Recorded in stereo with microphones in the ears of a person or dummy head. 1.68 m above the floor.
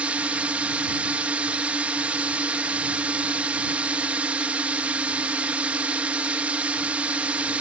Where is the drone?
Centre (ahead or behind).